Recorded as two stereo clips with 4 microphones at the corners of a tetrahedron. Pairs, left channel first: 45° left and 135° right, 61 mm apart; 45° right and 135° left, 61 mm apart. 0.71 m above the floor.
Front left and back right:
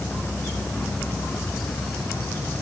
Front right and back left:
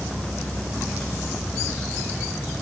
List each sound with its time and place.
Only background noise.